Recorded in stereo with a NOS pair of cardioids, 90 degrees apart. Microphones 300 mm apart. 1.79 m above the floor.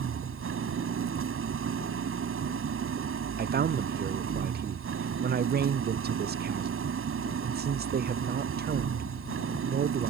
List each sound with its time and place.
0.0 s an engine running: 45° right
3.4 s a man speaking: 35° right